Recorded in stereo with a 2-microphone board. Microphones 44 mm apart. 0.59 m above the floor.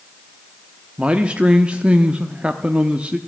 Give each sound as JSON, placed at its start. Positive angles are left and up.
{"t": 1.0, "sound": "a man speaking", "side_deg": -25, "distance_m": 0.7}